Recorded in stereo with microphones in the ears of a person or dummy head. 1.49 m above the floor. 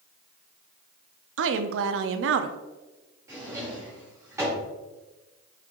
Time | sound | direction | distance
1.4 | a woman speaking | 75° right (ahead or behind) | 0.7 m
3.3 | a drawer | 20° right (ahead or behind) | 2.5 m